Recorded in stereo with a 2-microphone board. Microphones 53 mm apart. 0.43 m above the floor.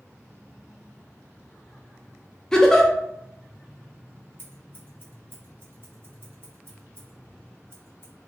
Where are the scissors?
45° right (ahead or behind), 1.2 m.